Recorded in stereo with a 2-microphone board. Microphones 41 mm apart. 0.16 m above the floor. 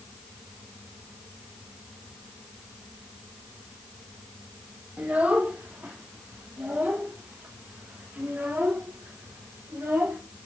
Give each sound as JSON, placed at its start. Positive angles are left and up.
{"t": 5.0, "sound": "a child speaking", "side_deg": -35, "distance_m": 3.5}